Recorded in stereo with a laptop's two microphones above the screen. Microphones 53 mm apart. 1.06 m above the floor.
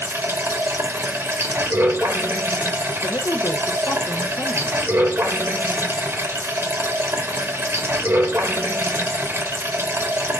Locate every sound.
0.0 s running water: 50° right (ahead or behind), 0.9 m
3.0 s a woman speaking: 65° left (ahead or behind), 1.0 m